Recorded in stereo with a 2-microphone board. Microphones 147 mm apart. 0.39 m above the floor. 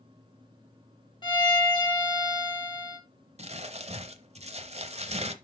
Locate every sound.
1.2 s a violin: 30° left (ahead or behind), 2.0 m
3.4 s crumpling: 50° right (ahead or behind), 0.7 m